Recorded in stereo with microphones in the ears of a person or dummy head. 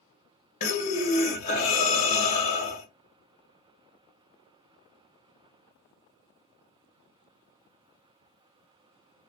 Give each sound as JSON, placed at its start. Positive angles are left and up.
{"t": 0.6, "sound": "breathing", "side_deg": 35, "distance_m": 0.9}